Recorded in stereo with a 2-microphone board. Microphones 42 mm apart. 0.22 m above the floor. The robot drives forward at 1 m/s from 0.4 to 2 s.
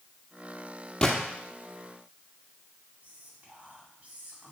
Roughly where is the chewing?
I don't hear chewing.